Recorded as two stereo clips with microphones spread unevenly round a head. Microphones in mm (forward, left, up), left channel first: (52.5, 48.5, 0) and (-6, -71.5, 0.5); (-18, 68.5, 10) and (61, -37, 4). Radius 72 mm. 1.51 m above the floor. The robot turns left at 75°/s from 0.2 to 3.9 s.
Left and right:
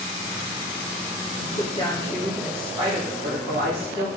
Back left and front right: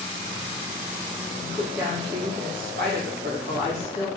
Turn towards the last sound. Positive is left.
turn(degrees=-140)